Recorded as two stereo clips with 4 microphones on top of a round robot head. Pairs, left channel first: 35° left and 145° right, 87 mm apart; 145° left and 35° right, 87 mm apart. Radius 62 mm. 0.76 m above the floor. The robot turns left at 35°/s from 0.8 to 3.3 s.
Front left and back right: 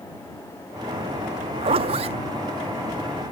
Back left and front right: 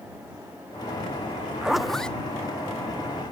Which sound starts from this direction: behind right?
A zipper, at 1.6 s.